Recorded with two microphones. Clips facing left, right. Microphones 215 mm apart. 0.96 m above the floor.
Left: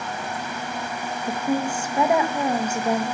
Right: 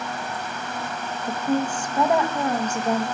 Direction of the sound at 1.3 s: 10° left (ahead or behind).